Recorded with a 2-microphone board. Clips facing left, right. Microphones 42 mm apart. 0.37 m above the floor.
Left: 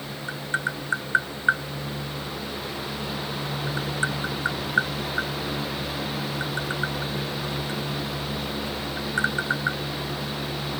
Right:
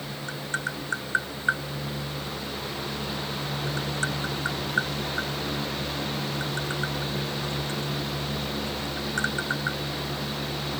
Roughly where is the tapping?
Centre.